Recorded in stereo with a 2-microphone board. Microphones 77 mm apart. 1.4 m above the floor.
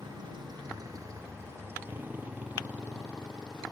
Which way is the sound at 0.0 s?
85° right.